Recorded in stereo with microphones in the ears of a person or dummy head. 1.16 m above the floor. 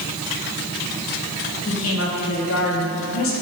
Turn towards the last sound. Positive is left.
turn(degrees=65)  # may be behind; listen again after turning